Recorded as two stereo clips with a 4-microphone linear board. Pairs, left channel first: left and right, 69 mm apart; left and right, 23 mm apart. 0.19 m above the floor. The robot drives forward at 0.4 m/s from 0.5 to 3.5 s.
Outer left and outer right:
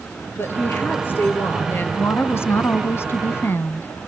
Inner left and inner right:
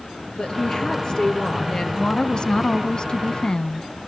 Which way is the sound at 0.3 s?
35° left (ahead or behind).